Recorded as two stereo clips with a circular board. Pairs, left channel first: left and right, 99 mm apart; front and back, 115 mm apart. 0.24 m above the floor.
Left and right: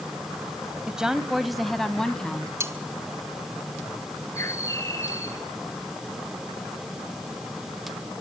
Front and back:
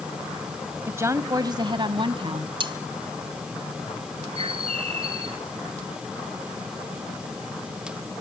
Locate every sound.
0.9 s a woman speaking: 155° right, 1.1 m; by 2.5 s 170° left, 1.7 m
2.6 s cutlery clinking: 145° right, 1.3 m
4.3 s a bird: 150° left, 1.9 m